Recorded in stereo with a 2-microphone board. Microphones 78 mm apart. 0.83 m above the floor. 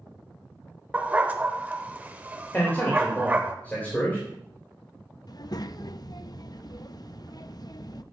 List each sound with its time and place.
0.9 s a dog barking: 20° right (ahead or behind), 0.9 m
2.5 s a man speaking: 20° left (ahead or behind), 3 m
5.3 s a child speaking: 55° left (ahead or behind), 0.5 m